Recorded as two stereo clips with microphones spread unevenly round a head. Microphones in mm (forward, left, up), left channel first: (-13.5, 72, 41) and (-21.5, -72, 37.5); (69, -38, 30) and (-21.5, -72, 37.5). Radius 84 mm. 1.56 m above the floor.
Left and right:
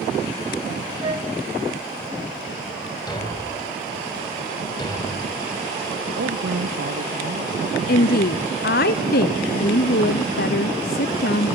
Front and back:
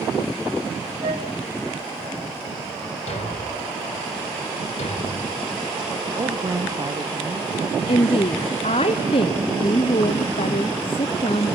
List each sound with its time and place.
1.0 s a flute: 150° right, 3 m
3.1 s a thud: 25° left, 3 m
6.1 s a woman speaking: 105° right, 2.5 m
7.9 s a woman speaking: 65° left, 0.7 m